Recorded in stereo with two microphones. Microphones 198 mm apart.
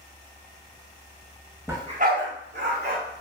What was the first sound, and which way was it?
A dog barking, 10° right (ahead or behind).